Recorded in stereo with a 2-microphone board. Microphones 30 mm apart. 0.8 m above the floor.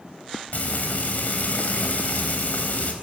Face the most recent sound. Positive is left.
turn(degrees=60)  # may be behind; listen again after turning